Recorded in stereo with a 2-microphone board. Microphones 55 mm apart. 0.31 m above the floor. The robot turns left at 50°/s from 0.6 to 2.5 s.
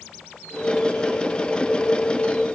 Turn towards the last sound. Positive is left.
No sound to turn to.